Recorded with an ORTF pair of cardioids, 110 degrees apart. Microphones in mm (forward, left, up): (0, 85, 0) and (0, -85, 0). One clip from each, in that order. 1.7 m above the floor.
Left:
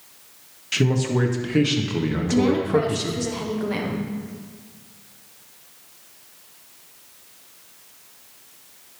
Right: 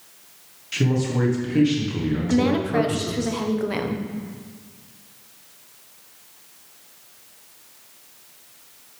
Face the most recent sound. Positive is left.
turn(degrees=-20)